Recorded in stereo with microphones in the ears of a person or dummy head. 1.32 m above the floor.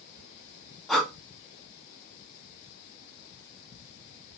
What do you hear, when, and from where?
0.9 s breathing: centre (ahead or behind), 0.6 m